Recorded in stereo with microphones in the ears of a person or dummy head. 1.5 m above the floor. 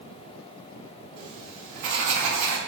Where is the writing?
45° right (ahead or behind), 2.5 m.